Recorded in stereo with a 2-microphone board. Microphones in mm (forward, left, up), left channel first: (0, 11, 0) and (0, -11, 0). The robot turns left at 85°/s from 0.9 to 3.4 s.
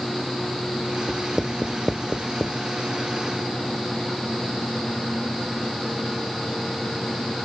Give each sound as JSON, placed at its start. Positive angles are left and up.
{"t": 1.1, "sound": "writing", "side_deg": -60}